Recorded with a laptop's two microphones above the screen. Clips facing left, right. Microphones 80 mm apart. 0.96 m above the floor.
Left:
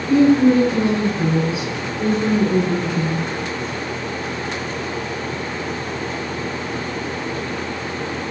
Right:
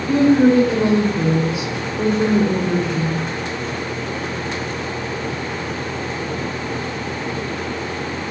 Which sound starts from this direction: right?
A woman speaking, at 0.1 s.